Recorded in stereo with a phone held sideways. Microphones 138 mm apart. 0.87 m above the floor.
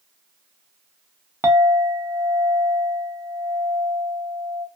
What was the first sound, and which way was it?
A clink, 20° right (ahead or behind).